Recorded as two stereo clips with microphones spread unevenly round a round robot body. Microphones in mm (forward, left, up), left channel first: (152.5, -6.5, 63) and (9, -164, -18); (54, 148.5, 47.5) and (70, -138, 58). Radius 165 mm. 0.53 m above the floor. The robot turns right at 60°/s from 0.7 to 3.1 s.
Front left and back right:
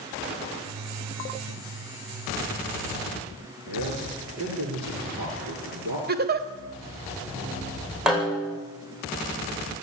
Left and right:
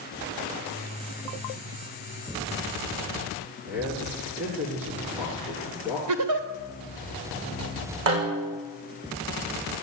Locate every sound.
3.7 s a man speaking: 170° right, 8 m
6.1 s a giggle: 105° right, 2.5 m
8.1 s a snare drum: 45° right, 8.5 m